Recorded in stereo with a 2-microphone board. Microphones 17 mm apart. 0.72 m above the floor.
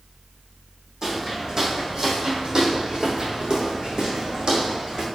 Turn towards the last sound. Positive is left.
turn(degrees=-55)  # may be behind; listen again after turning